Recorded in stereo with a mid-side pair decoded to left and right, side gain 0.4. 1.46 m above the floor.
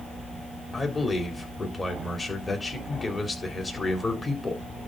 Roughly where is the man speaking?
Ahead left.